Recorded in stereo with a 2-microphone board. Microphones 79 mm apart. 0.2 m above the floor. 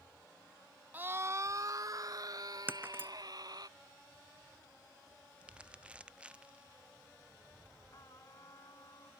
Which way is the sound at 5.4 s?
15° right (ahead or behind).